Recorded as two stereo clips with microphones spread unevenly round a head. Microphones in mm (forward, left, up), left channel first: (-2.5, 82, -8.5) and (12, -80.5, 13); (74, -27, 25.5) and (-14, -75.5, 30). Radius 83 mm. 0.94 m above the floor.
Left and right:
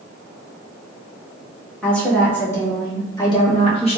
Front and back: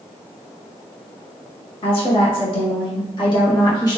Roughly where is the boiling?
No boiling in this recording.